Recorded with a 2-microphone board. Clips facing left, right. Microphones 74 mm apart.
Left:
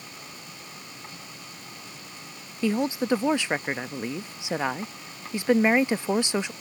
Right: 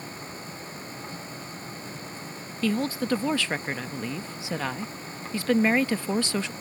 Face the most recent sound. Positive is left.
turn(degrees=20)  # may be behind; listen again after turning